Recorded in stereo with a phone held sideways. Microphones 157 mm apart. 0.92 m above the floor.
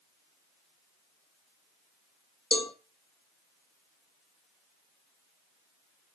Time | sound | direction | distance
2.5 | a cowbell | 35° left (ahead or behind) | 1.3 m